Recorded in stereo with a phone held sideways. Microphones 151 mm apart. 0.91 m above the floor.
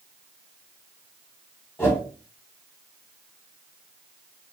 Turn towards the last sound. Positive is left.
turn(degrees=15)  # may be behind; listen again after turning